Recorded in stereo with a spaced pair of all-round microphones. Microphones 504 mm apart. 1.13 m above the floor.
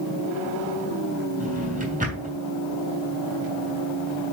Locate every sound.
1.4 s a drawer: 15° right (ahead or behind), 4 m